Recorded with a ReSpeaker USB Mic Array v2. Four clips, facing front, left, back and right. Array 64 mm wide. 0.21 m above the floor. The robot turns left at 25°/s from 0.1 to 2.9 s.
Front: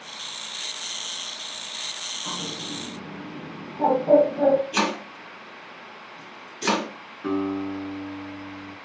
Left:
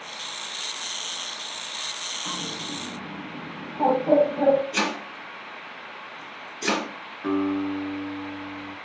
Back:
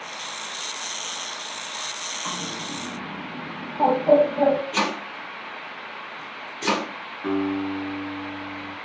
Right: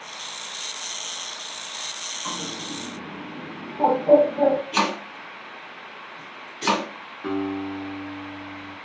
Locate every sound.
2.2 s a bird: 165° right, 0.8 m; by 4.6 s straight behind, 0.8 m
4.7 s chopping: 95° right, 1.6 m
7.2 s a guitar: 135° right, 1.4 m